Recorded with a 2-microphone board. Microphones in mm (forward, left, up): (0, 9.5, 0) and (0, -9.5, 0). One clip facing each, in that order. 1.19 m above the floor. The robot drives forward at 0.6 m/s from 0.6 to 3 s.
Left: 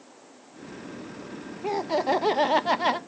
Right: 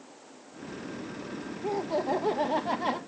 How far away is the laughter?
About 0.7 m.